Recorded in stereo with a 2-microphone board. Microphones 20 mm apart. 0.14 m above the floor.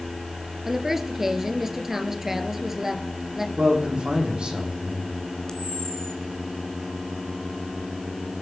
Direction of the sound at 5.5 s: 40° left (ahead or behind).